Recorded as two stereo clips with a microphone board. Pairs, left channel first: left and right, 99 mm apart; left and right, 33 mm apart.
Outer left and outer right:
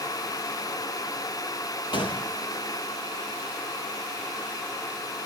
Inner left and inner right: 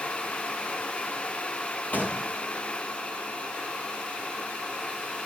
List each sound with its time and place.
1.9 s a gunshot: 50° left (ahead or behind), 3.5 m